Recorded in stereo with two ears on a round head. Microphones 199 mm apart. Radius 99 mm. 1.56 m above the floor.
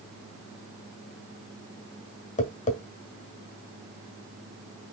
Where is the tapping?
35° left (ahead or behind), 1.6 m.